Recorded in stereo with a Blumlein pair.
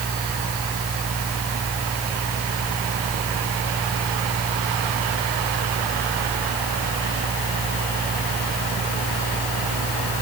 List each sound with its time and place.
0.0 s a fan: 15° right